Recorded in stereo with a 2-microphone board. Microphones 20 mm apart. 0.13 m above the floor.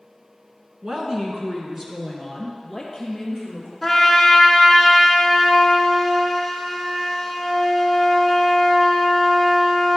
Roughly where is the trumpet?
Centre.